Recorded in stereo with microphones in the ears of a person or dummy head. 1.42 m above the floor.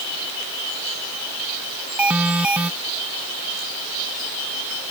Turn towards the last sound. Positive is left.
turn(degrees=0)  # may be behind; listen again after turning